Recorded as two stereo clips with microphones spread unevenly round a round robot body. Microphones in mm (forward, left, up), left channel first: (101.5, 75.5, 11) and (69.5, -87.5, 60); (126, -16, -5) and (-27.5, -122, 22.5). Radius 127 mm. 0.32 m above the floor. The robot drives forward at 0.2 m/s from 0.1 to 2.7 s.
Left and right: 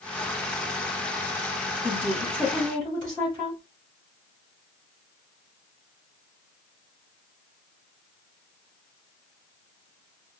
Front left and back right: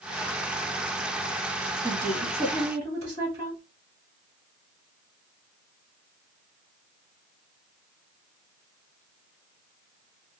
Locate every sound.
1.8 s a woman speaking: 150° left, 2.5 m; by 3.6 s 155° left, 3 m